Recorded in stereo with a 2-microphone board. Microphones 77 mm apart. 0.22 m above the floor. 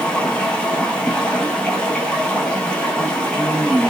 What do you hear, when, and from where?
0.0 s running water: 15° left (ahead or behind), 0.8 m